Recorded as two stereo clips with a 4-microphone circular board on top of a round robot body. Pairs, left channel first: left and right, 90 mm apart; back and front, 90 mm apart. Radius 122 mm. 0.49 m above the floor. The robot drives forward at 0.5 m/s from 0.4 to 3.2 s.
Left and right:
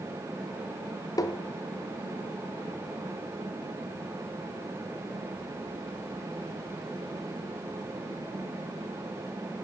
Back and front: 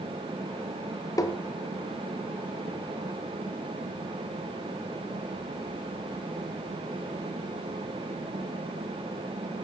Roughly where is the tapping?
Behind left.